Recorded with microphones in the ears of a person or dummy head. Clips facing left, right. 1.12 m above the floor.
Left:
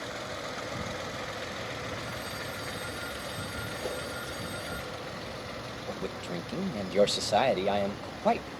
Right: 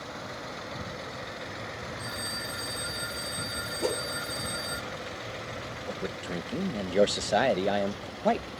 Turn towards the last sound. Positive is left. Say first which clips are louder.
# right 1 dB
turn(degrees=-15)  # may be behind; listen again after turning